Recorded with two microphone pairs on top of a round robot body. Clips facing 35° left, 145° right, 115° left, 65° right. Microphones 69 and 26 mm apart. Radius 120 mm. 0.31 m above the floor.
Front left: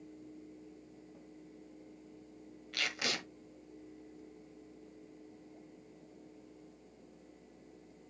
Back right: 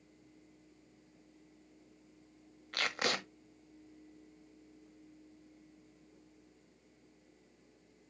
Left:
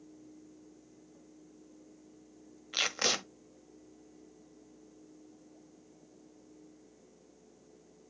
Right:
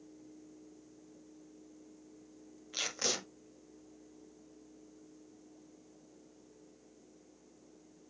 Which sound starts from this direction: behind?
Tape being pulled, at 2.7 s.